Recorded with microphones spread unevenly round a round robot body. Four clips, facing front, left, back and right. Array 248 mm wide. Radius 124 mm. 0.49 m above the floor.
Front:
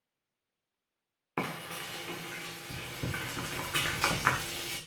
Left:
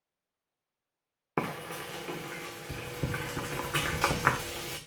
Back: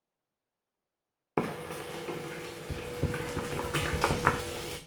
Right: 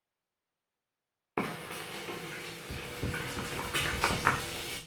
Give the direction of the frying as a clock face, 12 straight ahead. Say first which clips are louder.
Left 2 dB, back 4 dB; 7 o'clock.